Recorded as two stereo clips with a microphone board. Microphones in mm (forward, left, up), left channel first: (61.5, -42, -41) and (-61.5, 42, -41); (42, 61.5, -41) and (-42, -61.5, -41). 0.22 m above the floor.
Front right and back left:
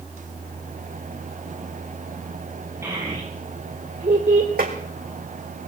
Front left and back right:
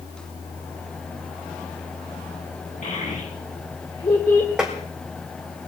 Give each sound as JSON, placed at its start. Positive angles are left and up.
{"t": 2.8, "sound": "a child speaking", "azimuth_deg": 75, "distance_m": 3.0}
{"t": 4.6, "sound": "tapping", "azimuth_deg": 150, "distance_m": 3.0}